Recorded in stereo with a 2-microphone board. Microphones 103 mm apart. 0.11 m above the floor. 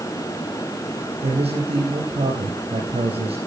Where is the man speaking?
70° right (ahead or behind), 3.5 m.